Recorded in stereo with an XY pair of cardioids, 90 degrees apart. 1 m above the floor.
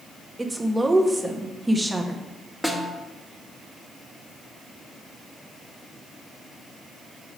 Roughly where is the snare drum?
Ahead.